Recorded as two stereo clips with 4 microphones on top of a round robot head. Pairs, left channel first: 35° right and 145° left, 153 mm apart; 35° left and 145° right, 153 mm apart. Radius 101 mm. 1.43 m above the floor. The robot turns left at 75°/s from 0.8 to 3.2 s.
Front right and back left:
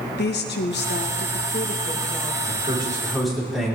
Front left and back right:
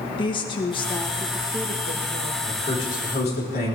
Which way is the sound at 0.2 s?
25° right.